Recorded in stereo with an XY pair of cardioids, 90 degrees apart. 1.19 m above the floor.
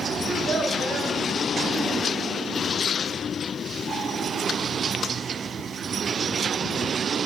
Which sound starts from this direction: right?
A child speaking, at 0.2 s.